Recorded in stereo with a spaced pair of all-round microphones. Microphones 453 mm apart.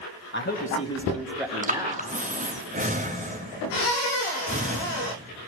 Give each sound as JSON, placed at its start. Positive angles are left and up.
{"t": 0.3, "sound": "a man speaking", "side_deg": 25, "distance_m": 1.5}
{"t": 1.6, "sound": "breathing", "side_deg": -15, "distance_m": 0.8}